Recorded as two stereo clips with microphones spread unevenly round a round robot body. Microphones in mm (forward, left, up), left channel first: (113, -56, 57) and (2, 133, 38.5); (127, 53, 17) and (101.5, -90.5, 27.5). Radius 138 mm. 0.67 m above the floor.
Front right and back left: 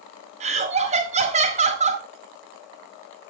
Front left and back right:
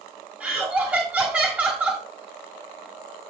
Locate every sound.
0.4 s laughter: 175° left, 1.4 m